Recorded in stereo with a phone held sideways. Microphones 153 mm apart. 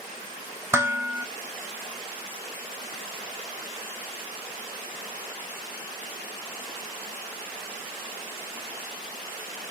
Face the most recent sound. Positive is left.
turn(degrees=-15)  # may be behind; listen again after turning